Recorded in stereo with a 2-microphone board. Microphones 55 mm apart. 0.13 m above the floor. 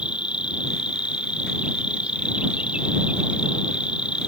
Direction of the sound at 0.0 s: 20° right (ahead or behind).